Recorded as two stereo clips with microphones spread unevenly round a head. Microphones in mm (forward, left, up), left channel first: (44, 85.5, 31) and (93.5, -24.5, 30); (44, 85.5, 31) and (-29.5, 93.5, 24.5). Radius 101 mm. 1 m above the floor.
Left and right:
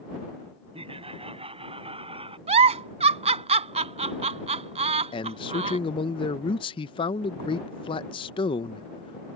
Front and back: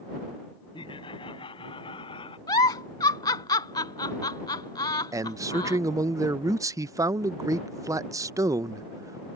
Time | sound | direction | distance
0.7 | laughter | 25° right | ?
2.5 | a giggle | 45° right | ?
5.1 | a man speaking | 155° left | ?